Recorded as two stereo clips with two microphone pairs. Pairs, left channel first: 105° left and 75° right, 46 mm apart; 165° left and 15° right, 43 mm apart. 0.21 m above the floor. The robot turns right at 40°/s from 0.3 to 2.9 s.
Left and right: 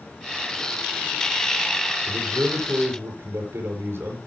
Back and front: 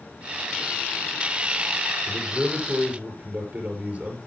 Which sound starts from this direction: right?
A man speaking, at 2.1 s.